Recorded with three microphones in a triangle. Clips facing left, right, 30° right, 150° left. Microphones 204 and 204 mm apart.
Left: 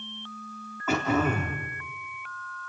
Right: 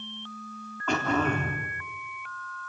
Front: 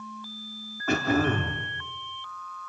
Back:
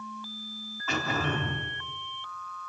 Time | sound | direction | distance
0.9 | throat clearing | 5° left | 3.5 m